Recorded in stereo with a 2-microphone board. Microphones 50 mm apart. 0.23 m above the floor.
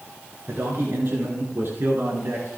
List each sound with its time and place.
0.5 s a man speaking: 60° right (ahead or behind), 4 m; by 2.5 s 50° right (ahead or behind), 3.5 m